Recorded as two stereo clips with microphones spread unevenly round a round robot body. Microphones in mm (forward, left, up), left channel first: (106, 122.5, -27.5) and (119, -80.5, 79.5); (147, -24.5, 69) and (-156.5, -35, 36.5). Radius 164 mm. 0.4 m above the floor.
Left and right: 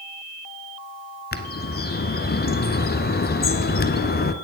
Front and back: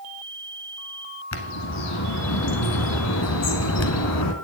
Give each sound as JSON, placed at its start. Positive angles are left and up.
{"t": 1.3, "sound": "a bird", "azimuth_deg": 45, "distance_m": 1.0}